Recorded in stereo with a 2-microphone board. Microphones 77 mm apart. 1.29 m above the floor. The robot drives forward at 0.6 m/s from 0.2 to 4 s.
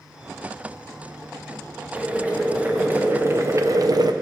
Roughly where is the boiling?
Centre.